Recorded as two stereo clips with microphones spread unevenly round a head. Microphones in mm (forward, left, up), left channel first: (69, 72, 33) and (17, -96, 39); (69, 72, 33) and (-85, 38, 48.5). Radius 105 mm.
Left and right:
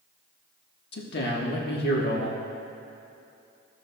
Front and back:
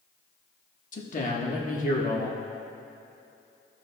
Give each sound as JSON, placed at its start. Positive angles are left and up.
{"t": 0.9, "sound": "a man speaking", "azimuth_deg": 50, "distance_m": 1.4}